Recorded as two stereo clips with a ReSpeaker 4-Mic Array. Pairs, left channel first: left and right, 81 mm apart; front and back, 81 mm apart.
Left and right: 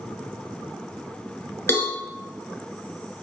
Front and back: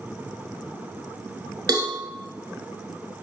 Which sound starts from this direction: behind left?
A cowbell, at 1.7 s.